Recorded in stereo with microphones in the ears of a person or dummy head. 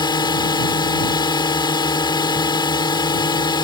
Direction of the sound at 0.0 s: 25° left (ahead or behind).